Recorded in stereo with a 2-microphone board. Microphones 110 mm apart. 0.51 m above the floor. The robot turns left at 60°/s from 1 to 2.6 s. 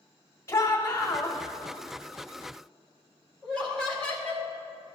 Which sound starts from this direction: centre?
Laughter, at 3.4 s.